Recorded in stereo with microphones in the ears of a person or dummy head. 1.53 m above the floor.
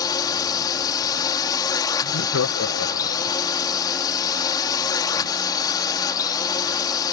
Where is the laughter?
80° left.